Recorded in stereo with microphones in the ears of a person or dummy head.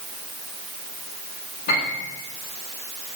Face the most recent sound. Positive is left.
turn(degrees=50)  # may be behind; listen again after turning